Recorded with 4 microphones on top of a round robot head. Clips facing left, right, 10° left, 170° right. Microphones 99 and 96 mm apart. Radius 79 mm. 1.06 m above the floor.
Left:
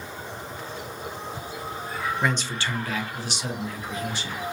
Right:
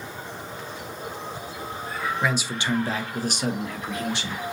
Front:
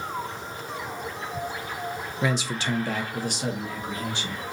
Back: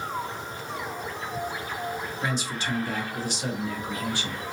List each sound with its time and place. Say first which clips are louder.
2.2 s a man speaking: right 2 dB, front 5 dB; straight ahead, 0.7 m; by 4.4 s 70° right, 1.3 m